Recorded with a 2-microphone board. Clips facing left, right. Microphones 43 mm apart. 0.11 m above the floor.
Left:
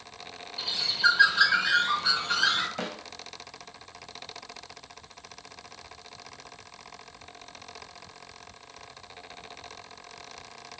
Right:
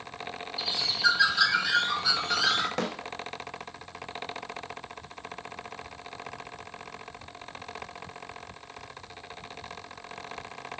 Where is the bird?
20° left (ahead or behind), 4.5 m.